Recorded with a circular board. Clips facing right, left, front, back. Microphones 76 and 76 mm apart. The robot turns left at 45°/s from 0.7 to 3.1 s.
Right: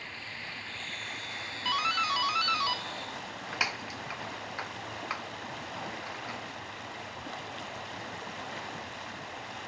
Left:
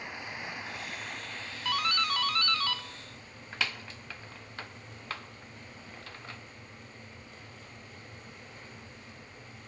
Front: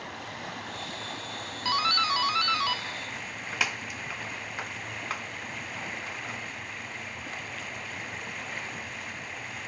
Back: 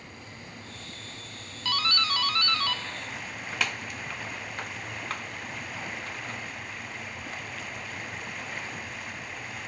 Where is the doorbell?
5° right, 1.2 m; by 6.4 s 75° right, 1.2 m.